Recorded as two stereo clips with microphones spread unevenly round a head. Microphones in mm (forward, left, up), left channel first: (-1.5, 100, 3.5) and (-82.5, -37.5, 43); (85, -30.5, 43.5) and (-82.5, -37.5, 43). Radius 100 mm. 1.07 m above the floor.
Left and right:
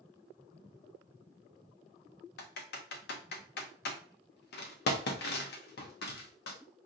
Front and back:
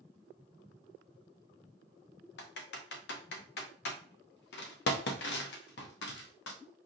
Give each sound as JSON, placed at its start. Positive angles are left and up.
{"t": 2.4, "sound": "typing on a keyboard", "azimuth_deg": 30, "distance_m": 0.6}